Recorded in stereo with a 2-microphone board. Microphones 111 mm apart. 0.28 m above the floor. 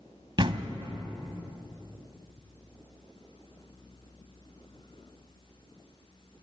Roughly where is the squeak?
I don't hear a squeak.